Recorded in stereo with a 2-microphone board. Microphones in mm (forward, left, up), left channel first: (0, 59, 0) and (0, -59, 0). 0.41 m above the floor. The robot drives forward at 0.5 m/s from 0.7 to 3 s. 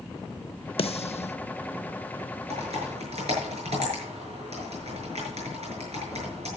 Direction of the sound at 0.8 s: 55° left (ahead or behind).